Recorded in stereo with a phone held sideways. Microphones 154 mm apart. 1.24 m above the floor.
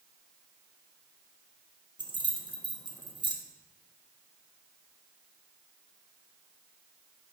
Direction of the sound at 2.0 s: 30° right (ahead or behind).